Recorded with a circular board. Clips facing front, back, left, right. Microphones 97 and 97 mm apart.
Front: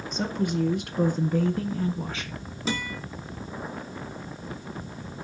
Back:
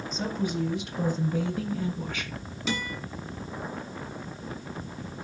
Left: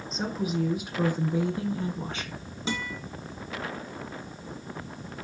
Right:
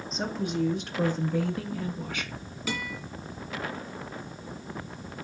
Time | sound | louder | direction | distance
0.1 | a woman speaking | front 3 dB, left 1 dB | straight ahead | 2 m
2.7 | a guitar | front 1 dB, left 1 dB | 35° left | 2 m